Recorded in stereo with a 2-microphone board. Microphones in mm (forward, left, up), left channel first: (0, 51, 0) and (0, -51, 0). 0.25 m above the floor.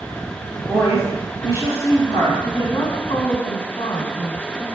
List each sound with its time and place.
0.7 s a woman speaking: 30° left (ahead or behind), 3 m
2.4 s a woman speaking: 50° left (ahead or behind), 1.9 m